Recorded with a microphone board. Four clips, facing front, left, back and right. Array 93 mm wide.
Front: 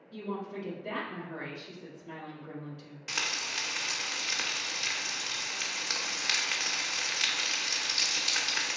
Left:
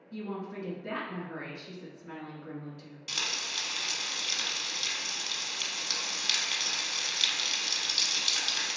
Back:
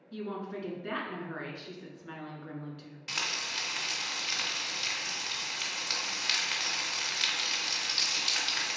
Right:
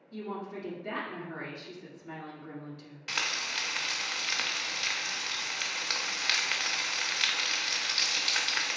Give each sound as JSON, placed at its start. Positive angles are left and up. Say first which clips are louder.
{"t": 0.1, "sound": "a woman speaking", "louder": "even, even", "azimuth_deg": 175, "distance_m": 1.7}
{"t": 3.1, "sound": "frying", "louder": "right 4 dB, front 1 dB", "azimuth_deg": -80, "distance_m": 0.7}